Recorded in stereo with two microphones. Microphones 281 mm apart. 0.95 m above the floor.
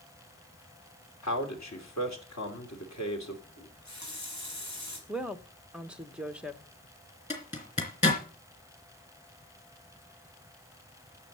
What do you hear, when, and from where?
1.2 s a man speaking: 70° left (ahead or behind), 3 m
3.6 s a running tap: 75° left (ahead or behind), 4.5 m
5.1 s a woman speaking: 5° right (ahead or behind), 1.0 m
7.3 s a zipper: 25° left (ahead or behind), 3 m